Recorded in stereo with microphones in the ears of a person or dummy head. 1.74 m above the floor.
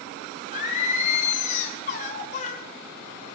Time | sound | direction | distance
0.5 | singing | 40° left (ahead or behind) | 1.5 m